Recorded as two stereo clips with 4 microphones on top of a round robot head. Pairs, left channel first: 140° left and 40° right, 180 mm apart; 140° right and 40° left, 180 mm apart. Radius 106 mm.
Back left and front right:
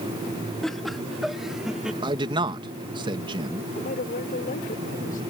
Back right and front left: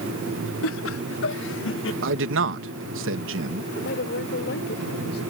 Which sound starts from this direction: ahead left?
A man speaking, at 2.0 s.